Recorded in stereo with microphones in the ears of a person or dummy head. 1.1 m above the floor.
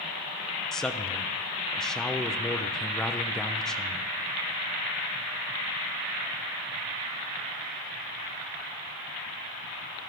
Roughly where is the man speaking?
Centre.